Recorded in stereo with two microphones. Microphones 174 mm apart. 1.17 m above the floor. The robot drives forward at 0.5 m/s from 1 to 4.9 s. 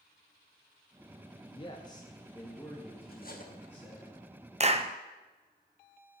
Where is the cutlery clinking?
65° left (ahead or behind), 1.3 m; by 3.5 s 55° left (ahead or behind), 1.4 m.